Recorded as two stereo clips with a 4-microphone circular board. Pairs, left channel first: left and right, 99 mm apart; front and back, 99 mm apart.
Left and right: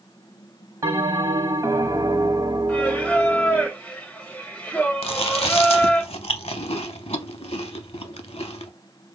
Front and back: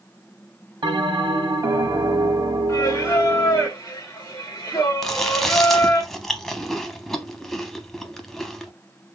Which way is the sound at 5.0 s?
85° left.